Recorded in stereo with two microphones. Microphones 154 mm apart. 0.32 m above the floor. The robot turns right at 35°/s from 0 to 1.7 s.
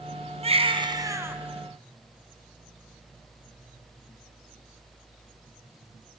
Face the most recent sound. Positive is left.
turn(degrees=0)